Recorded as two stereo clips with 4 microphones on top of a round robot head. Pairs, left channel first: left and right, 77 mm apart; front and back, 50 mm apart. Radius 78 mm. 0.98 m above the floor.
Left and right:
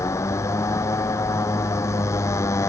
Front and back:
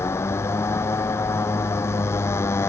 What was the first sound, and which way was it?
A motorcycle, 35° left.